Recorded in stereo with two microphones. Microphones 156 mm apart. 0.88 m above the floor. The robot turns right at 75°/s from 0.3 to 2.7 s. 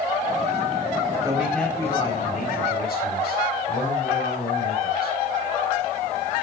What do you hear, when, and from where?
1.2 s a man speaking: 20° right, 4 m; by 5.1 s 90° left, 4 m